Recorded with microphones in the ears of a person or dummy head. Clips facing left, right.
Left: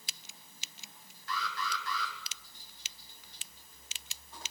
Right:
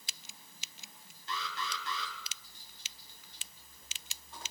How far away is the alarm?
About 6 m.